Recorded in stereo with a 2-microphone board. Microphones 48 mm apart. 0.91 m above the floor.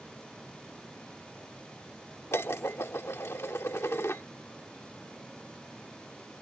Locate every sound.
2.3 s dishes clattering: 60° left (ahead or behind)